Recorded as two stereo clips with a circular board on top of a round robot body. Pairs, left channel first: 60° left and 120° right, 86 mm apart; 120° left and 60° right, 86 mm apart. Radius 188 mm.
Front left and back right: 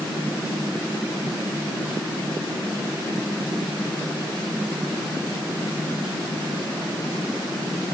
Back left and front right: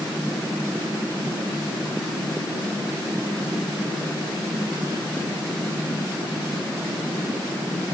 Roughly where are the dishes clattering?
No dishes clattering in this recording.